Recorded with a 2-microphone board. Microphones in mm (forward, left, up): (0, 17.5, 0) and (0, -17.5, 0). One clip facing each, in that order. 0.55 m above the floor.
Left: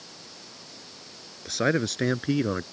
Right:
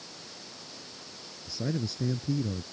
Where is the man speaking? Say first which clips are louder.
Left 9 dB; 75° left (ahead or behind).